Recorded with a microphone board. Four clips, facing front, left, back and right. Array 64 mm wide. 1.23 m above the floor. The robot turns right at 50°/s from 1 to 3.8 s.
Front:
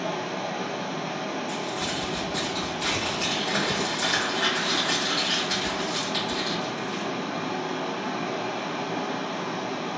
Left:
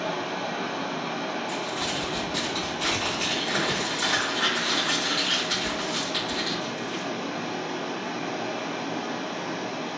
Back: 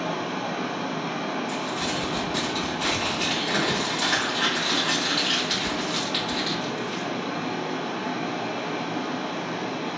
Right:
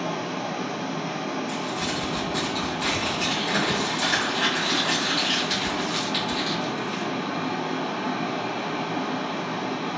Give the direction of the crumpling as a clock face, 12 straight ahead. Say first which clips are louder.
Right 1 dB, back 2 dB; 9 o'clock.